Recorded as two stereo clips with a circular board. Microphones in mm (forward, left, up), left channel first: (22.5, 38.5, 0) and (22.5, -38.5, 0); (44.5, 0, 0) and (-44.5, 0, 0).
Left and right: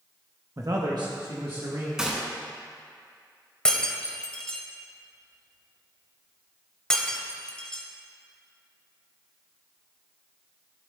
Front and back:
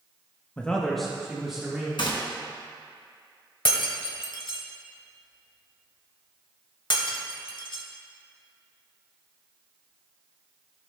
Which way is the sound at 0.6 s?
65° right.